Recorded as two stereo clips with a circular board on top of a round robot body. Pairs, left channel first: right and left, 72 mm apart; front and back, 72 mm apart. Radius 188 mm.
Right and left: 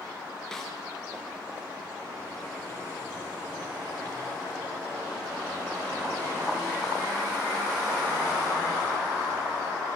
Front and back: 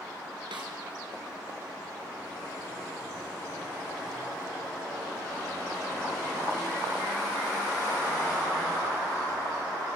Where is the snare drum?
175° right, 4.5 m.